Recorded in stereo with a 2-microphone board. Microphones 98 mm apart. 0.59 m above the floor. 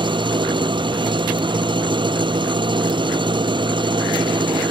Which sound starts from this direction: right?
An engine running, at 0.0 s.